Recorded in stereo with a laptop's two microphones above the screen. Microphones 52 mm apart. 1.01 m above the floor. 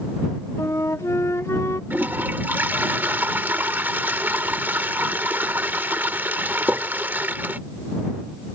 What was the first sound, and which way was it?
A flute, 90° left.